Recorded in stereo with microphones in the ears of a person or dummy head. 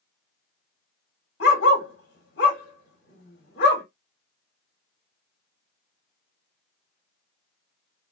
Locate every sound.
1.4 s a dog barking: 55° left (ahead or behind), 1.3 m